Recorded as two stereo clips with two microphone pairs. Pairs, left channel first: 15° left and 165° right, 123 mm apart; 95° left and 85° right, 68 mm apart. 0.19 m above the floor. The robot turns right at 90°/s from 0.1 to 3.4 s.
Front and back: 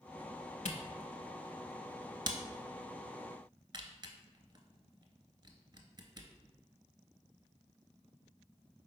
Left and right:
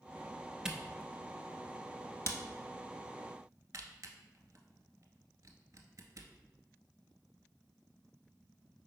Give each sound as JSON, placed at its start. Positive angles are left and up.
{"t": 0.7, "sound": "a camera shutter", "azimuth_deg": -5, "distance_m": 0.6}